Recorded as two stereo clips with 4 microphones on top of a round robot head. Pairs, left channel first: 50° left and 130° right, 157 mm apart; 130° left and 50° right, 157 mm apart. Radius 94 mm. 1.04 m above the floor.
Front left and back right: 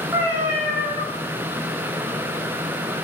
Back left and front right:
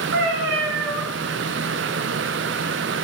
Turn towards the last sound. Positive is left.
turn(degrees=-55)